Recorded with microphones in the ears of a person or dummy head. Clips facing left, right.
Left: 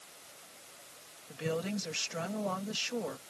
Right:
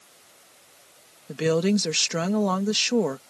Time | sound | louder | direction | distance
1.3 | a woman speaking | right 13 dB | 75° right (ahead or behind) | ?